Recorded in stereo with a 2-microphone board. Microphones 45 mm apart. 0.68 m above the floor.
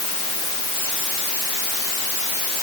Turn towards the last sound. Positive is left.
No sound to turn to.